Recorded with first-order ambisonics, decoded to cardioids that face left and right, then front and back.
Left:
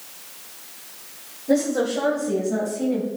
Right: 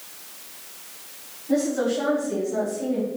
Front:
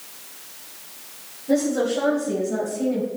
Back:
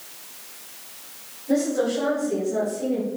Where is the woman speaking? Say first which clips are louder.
Left 2 dB, front 1 dB; 80° left, 3 m; by 3.1 s 60° left, 5 m.